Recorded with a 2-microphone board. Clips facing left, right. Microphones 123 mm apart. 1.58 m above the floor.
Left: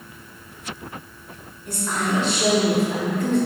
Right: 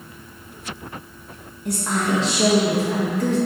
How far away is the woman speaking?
About 2.5 m.